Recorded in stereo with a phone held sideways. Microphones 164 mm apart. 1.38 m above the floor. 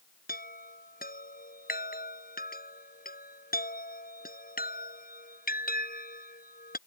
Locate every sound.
0.3 s a chime: 65° left (ahead or behind)